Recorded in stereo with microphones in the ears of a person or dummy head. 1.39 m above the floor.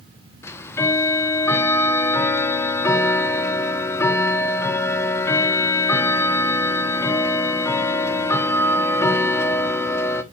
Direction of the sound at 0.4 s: 15° left (ahead or behind).